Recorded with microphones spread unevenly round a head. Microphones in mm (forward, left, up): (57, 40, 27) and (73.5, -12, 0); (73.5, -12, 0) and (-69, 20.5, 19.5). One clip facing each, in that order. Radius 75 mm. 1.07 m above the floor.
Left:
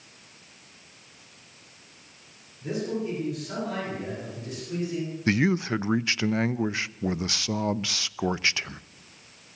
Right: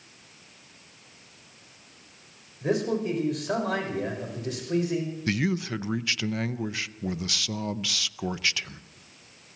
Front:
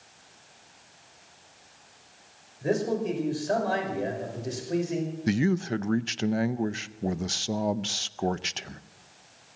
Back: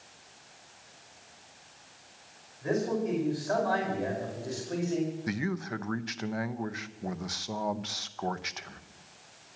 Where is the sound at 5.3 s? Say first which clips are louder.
Left 5 dB, front 8 dB; 40° left, 0.7 m.